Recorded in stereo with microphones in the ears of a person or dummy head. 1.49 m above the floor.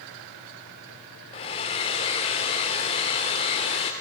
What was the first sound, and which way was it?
A hair dryer, 20° left (ahead or behind).